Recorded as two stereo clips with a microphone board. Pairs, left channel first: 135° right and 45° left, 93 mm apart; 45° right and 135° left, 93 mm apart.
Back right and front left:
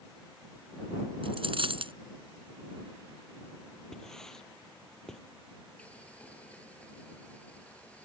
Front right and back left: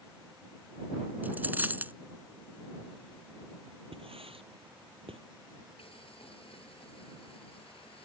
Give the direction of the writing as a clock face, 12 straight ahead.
7 o'clock.